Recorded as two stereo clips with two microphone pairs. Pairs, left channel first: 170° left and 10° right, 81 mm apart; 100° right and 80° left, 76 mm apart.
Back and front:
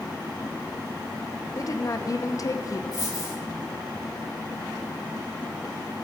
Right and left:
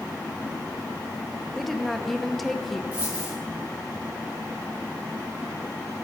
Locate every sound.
1.6 s a woman speaking: 170° left, 0.6 m
2.9 s a dropped coin: 140° left, 3.5 m